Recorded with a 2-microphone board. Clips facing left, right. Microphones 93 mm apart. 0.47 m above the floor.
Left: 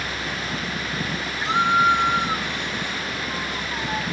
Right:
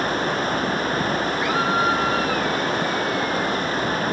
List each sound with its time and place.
0.0 s running water: 40° right (ahead or behind)
1.4 s a scream: 25° left (ahead or behind)